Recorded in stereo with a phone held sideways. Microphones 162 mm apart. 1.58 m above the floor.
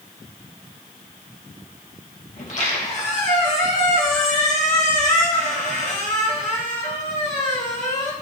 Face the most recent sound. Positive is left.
turn(degrees=50)  # may be behind; listen again after turning